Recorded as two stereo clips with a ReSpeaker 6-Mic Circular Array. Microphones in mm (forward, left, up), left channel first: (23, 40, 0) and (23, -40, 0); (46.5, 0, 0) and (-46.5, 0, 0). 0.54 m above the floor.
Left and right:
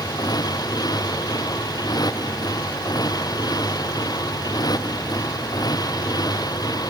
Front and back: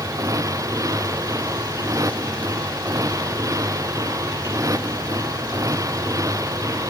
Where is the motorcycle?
125° left.